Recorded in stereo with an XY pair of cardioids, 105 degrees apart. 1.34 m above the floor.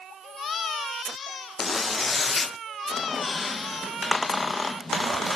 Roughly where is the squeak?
Ahead left.